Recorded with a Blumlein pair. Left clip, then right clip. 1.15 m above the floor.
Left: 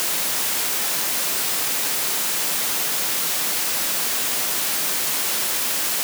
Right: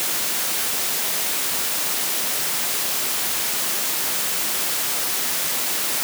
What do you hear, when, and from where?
Only background noise.